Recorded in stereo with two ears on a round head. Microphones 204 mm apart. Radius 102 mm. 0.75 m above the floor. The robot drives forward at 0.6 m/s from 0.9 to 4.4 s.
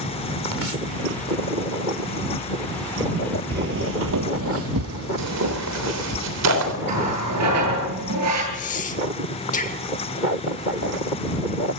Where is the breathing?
30° left (ahead or behind), 1.2 m.